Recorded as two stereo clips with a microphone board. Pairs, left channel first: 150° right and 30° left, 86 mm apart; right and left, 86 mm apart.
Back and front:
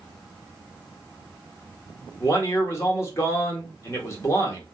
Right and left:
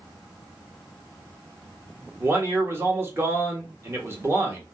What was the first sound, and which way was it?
A man speaking, 150° left.